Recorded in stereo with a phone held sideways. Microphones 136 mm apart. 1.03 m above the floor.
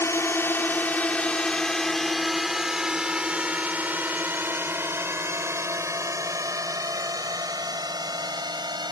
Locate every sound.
0.0 s a drone: 20° left (ahead or behind); by 8.9 s 35° right (ahead or behind)